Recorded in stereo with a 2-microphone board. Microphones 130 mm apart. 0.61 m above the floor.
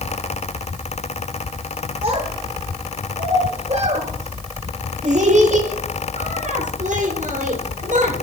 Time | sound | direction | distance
2.0 | a child speaking | 45° right (ahead or behind) | 8.5 m